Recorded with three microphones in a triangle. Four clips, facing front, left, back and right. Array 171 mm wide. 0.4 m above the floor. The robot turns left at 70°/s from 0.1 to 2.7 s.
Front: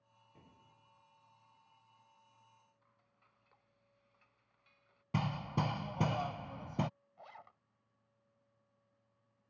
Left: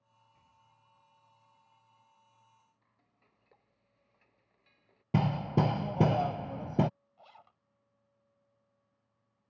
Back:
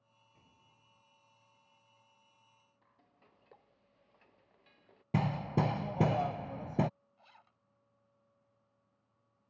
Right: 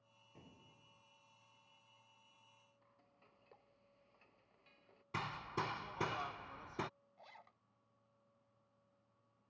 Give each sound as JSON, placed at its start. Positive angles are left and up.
{"t": 0.3, "sound": "an explosion", "azimuth_deg": -60}
{"t": 2.8, "sound": "frying", "azimuth_deg": -175}
{"t": 5.1, "sound": "hammering", "azimuth_deg": 110}
{"t": 7.2, "sound": "a zipper", "azimuth_deg": 15}